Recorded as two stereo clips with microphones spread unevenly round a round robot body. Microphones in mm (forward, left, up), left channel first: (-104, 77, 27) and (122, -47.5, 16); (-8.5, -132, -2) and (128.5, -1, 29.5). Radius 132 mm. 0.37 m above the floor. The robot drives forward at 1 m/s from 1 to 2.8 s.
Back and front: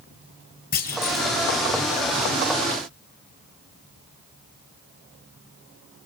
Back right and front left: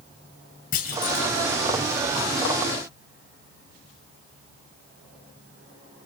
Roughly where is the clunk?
Behind right.